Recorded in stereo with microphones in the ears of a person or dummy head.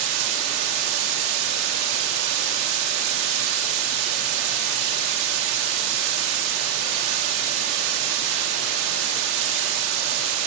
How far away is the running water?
About 2 m.